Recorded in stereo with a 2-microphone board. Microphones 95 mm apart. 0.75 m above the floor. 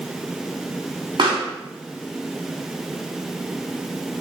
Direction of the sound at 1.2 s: 60° right (ahead or behind).